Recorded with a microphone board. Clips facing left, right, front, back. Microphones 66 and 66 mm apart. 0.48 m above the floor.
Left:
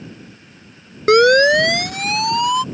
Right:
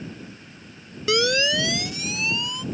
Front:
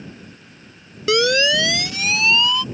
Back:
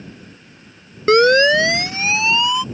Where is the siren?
130° left; by 2.6 s 105° left.